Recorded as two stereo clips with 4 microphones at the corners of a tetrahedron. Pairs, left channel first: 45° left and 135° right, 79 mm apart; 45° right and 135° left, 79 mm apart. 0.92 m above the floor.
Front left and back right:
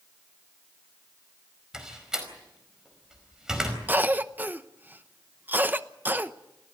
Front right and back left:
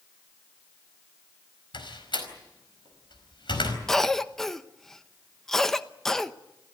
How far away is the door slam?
About 4.5 m.